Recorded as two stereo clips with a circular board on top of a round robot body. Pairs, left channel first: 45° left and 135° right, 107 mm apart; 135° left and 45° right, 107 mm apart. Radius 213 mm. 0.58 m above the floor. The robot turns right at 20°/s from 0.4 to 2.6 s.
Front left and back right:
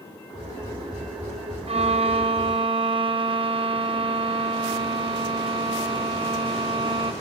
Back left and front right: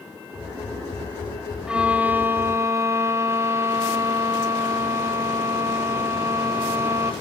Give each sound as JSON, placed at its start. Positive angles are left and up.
{"t": 1.7, "sound": "a violin", "azimuth_deg": -125, "distance_m": 0.9}